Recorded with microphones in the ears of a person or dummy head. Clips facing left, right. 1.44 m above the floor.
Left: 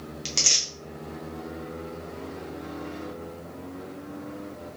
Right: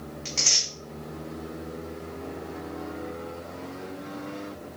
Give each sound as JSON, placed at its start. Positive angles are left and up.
{"t": 0.2, "sound": "tearing paper", "side_deg": 55, "distance_m": 0.8}